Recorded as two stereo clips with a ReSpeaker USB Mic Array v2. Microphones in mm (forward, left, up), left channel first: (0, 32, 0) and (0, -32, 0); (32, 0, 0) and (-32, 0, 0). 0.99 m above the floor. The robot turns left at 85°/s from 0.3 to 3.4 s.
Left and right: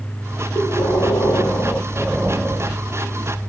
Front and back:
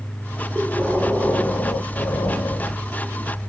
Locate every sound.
0.6 s breathing: 130° left, 1.5 m; by 3.5 s 110° right, 1.5 m